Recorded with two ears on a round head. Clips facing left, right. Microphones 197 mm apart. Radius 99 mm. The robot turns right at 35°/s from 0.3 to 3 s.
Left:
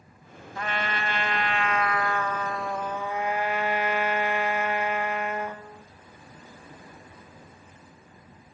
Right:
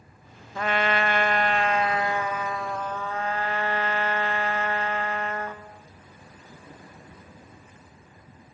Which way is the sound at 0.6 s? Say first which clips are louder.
Right 6 dB; 70° right.